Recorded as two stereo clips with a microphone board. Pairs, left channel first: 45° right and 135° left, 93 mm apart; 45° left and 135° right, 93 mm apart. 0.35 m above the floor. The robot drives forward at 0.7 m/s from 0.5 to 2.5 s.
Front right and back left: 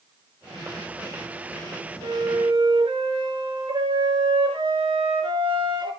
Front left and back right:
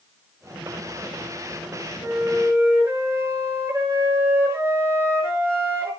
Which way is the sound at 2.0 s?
165° left.